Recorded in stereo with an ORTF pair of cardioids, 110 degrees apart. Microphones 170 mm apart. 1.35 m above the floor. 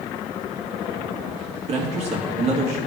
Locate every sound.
1.7 s a man speaking: 40° right, 2.5 m